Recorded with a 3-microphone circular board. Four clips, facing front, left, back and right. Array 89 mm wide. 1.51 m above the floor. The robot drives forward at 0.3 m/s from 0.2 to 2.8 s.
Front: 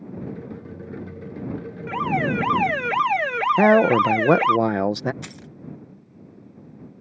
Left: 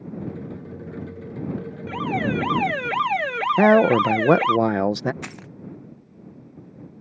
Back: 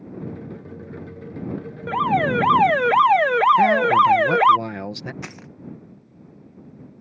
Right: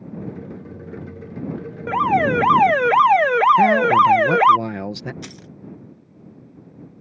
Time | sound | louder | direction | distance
1.9 | an alarm | right 8 dB, back 4 dB | 120° right | ?
3.6 | a man speaking | right 1 dB, even | 45° left | ?
5.2 | keys jangling | left 1 dB, back 2 dB | 125° left | ?